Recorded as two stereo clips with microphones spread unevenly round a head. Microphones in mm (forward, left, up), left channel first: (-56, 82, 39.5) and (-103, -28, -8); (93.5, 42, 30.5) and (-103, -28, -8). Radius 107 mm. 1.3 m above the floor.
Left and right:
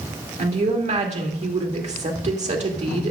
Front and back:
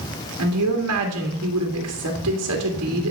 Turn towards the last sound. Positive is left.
turn(degrees=-140)